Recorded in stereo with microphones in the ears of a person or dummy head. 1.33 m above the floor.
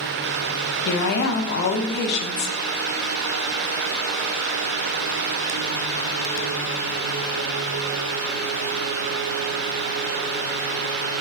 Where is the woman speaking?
55° left (ahead or behind), 0.5 m.